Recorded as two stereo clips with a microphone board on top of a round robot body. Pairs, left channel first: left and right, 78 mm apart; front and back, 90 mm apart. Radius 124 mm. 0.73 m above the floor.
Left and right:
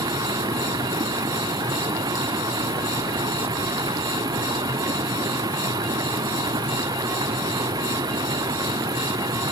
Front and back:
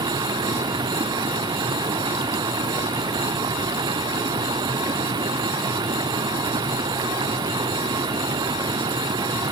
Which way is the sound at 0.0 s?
135° right.